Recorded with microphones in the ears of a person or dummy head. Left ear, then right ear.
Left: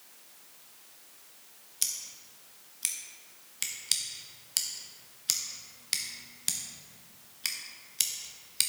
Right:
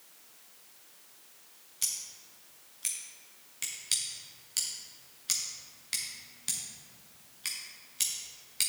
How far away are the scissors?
About 0.7 m.